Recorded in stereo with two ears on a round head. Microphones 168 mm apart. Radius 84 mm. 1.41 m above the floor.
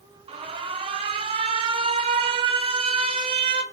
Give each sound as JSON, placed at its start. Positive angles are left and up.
{"t": 0.3, "sound": "an alarm", "side_deg": -30, "distance_m": 1.5}